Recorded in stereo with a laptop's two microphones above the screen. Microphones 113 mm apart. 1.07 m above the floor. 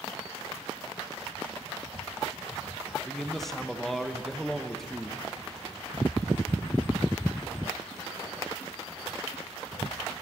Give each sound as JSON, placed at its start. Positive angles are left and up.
{"t": 3.0, "sound": "a man speaking", "side_deg": 0, "distance_m": 1.3}